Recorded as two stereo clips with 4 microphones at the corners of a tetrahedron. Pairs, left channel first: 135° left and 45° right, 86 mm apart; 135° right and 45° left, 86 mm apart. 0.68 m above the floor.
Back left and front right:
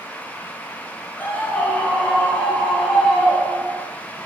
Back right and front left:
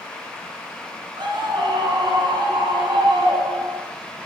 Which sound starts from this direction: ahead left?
A scream, at 1.2 s.